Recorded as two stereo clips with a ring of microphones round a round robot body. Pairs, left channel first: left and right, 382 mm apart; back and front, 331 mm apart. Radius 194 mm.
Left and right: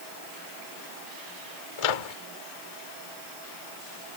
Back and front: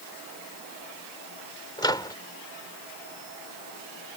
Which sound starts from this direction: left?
A microwave, at 1.8 s.